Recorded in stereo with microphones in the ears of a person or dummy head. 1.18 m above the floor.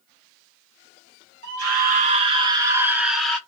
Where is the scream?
65° right (ahead or behind), 0.9 m; by 3.4 s centre (ahead or behind), 1.0 m.